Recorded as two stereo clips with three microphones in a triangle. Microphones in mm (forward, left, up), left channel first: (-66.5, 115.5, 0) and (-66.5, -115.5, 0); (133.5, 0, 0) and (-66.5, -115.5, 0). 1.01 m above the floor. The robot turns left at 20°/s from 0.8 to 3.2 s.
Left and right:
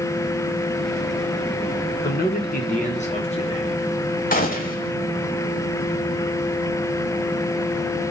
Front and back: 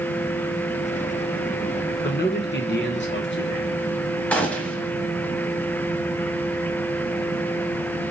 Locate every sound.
2.0 s a man speaking: 60° left, 1.3 m; by 3.8 s 35° left, 1.3 m
4.3 s a gunshot: 110° left, 1.0 m